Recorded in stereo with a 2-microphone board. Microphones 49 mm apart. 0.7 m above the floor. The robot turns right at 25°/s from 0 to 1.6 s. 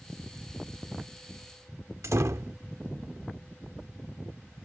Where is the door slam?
80° right.